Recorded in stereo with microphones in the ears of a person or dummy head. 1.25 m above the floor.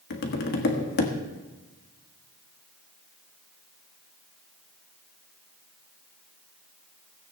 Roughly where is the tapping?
Left.